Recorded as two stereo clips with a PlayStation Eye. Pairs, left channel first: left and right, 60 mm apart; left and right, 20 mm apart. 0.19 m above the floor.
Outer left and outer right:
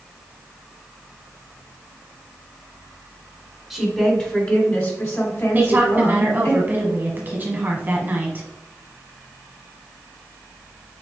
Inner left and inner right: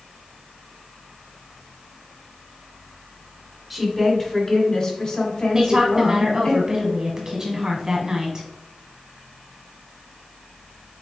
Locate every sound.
3.7 s a woman speaking: centre (ahead or behind), 1.1 m; by 6.5 s 60° left (ahead or behind), 2 m
5.5 s a woman speaking: 30° right (ahead or behind), 1.3 m